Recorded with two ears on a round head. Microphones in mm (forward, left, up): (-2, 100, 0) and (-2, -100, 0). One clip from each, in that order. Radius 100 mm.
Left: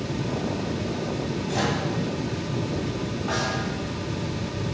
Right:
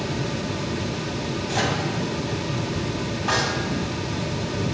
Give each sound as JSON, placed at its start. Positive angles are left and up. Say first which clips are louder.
{"t": 1.5, "sound": "a microwave", "louder": "right 2 dB", "side_deg": -15, "distance_m": 2.5}
{"t": 3.3, "sound": "a snare drum", "louder": "right 5 dB", "side_deg": -55, "distance_m": 4.5}